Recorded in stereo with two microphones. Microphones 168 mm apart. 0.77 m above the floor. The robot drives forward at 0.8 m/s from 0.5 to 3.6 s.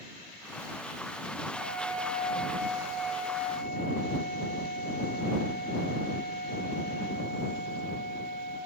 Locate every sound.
1.5 s a flute: centre (ahead or behind), 3.5 m